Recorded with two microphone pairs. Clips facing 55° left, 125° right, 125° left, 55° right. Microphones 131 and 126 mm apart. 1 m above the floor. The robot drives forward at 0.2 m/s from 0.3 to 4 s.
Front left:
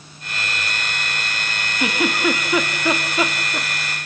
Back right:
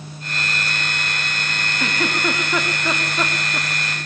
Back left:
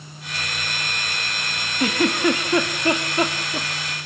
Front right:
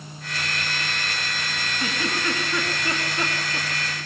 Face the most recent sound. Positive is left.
turn(degrees=140)